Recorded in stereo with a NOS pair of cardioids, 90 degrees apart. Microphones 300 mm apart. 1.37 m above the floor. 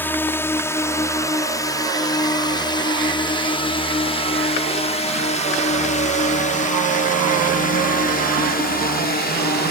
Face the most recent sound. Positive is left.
turn(degrees=35)